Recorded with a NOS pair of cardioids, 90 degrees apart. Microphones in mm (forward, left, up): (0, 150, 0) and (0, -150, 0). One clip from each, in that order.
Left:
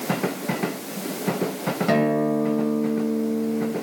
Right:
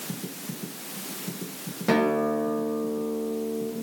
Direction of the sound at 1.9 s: Straight ahead.